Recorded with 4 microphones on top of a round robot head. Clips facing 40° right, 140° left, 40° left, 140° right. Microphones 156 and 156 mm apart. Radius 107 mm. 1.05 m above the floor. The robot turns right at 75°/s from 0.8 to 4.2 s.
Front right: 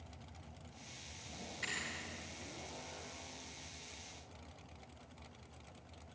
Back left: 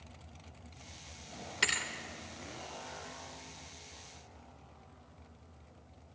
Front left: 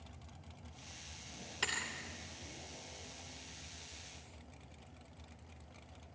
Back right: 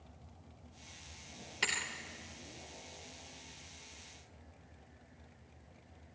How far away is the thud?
About 2 m.